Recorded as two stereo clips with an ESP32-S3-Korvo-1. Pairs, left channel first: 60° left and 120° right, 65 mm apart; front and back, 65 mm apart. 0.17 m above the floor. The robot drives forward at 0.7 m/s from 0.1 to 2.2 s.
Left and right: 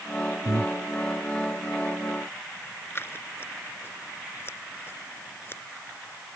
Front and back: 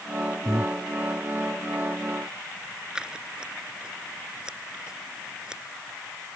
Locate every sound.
0.5 s breathing: 145° right
3.0 s scissors: 105° left